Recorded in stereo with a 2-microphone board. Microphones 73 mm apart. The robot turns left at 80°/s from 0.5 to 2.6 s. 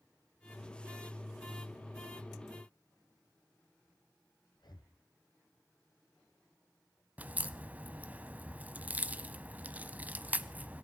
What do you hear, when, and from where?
4.5 s breathing: 75° left (ahead or behind), 2.5 m
7.2 s a crack: 20° right (ahead or behind), 0.8 m